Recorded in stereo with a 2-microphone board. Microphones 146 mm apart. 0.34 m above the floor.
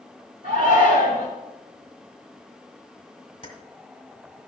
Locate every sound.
0.4 s a shout: 55° right (ahead or behind), 3 m
3.4 s keys jangling: 35° left (ahead or behind), 1.9 m